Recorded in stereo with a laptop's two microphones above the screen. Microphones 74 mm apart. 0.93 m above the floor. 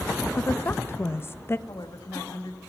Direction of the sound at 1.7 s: 65° left (ahead or behind).